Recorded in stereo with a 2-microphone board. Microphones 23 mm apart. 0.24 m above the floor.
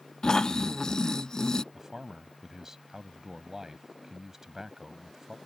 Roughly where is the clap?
No clap in this recording.